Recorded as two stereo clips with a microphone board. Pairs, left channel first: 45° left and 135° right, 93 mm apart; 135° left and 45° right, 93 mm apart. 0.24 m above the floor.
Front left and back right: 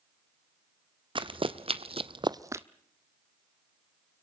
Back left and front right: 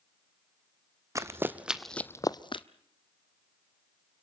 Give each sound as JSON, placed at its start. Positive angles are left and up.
{"t": 1.1, "sound": "running footsteps", "azimuth_deg": -105, "distance_m": 1.0}